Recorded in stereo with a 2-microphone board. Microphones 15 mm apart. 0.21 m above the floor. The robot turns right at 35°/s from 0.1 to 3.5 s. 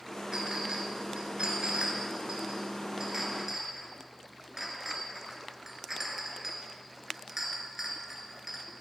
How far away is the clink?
About 2.5 m.